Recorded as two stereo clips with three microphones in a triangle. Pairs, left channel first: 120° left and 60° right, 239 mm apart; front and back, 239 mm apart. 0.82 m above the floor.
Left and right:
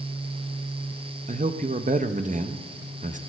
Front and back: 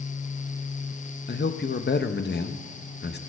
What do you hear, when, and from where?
1.3 s a man speaking: 15° right, 0.6 m